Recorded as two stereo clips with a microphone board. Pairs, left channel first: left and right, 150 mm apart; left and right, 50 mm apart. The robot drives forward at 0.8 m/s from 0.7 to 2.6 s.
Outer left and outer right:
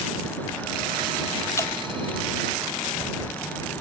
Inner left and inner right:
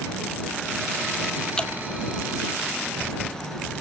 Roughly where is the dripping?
Centre.